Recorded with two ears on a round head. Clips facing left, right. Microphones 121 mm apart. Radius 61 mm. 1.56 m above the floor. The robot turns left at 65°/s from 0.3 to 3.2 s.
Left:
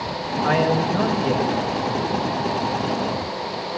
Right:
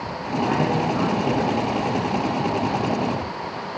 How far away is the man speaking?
About 7 m.